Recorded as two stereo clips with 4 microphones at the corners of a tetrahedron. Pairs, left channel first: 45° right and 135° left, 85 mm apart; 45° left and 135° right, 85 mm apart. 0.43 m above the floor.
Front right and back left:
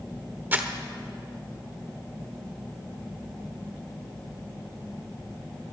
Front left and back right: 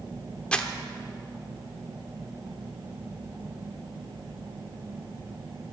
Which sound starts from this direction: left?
Crumpling, at 0.5 s.